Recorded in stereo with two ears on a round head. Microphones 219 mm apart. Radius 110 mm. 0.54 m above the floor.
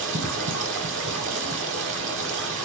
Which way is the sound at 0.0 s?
50° right (ahead or behind).